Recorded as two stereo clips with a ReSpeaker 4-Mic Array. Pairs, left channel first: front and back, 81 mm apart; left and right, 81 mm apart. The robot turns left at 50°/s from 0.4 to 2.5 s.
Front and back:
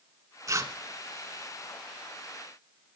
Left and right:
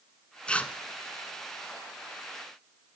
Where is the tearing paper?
165° left, 0.6 m; by 0.7 s 150° left, 0.6 m.